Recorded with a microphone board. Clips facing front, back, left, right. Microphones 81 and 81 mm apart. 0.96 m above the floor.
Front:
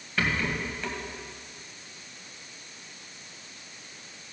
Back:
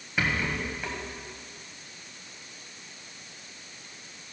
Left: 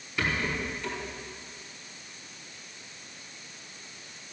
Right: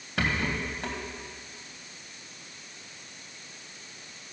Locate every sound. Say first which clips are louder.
0.2 s a rattle: even, right 1 dB; 105° right, 2.5 m